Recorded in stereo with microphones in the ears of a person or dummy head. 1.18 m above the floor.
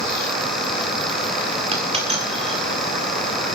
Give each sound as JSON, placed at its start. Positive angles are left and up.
{"t": 1.7, "sound": "a dropped coin", "side_deg": -30, "distance_m": 1.7}